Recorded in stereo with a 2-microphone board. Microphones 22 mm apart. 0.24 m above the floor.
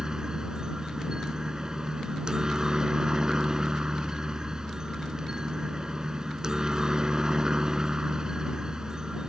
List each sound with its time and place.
0.0 s a helicopter: 30° right (ahead or behind)